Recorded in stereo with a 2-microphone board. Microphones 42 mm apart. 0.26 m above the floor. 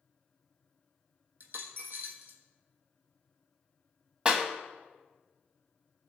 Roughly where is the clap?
Right.